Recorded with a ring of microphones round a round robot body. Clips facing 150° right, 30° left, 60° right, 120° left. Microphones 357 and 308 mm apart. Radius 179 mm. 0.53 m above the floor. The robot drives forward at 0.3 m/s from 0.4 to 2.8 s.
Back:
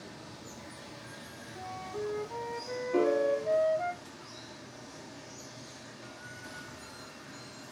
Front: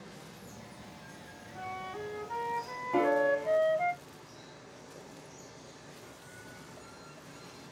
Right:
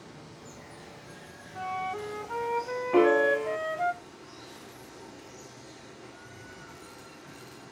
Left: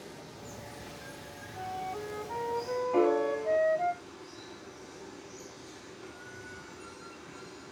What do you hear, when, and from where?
0.0 s running water: 150° right, 3.5 m; by 7.7 s 155° right, 4 m
1.6 s a flute: 15° right, 1.0 m; by 3.9 s 25° right, 0.7 m
2.9 s a piano: 35° right, 0.6 m